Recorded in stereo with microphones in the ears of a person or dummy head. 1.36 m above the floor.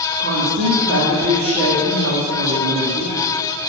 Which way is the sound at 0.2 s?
60° right (ahead or behind).